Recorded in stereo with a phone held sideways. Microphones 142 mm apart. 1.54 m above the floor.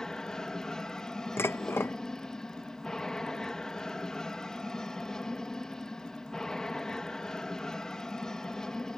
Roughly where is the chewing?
No chewing in this recording.